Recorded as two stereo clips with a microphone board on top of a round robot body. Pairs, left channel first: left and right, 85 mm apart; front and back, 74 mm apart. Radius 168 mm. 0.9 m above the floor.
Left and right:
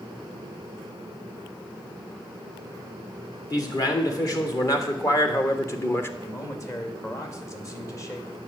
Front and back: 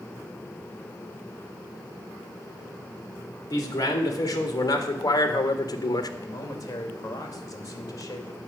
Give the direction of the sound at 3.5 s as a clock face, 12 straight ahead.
10 o'clock.